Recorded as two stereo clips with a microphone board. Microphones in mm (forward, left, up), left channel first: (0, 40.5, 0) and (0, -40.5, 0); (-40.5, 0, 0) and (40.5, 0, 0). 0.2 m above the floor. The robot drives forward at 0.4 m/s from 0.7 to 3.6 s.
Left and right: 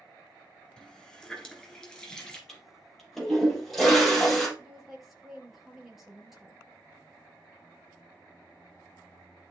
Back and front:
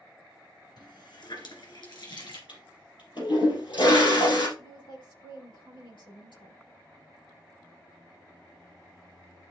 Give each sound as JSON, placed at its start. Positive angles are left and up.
{"t": 0.8, "sound": "a running tap", "azimuth_deg": 170, "distance_m": 2.0}
{"t": 2.5, "sound": "a toilet flushing", "azimuth_deg": 175, "distance_m": 4.0}
{"t": 4.6, "sound": "a woman speaking", "azimuth_deg": -175, "distance_m": 3.5}